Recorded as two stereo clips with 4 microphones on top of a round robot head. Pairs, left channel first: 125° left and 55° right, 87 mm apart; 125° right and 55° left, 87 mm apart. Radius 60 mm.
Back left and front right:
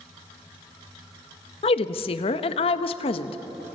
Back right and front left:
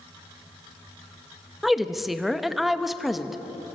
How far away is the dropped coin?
No dropped coin in this recording.